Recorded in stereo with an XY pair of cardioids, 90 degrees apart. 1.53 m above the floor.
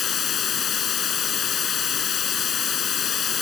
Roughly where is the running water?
Ahead left.